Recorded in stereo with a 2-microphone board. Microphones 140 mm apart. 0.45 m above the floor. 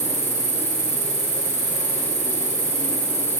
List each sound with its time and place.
0.0 s an insect: 50° left (ahead or behind), 5.5 m